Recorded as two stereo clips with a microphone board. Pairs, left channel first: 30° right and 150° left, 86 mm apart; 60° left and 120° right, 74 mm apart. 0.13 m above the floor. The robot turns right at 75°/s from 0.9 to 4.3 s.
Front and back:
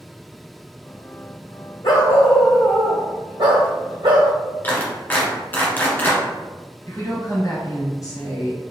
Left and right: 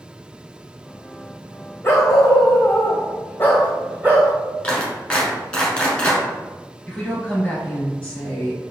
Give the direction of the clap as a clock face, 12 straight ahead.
12 o'clock.